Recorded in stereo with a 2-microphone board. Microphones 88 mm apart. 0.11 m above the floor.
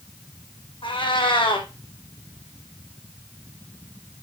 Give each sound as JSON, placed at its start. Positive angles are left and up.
{"t": 0.8, "sound": "a cat meowing", "side_deg": 80, "distance_m": 2.0}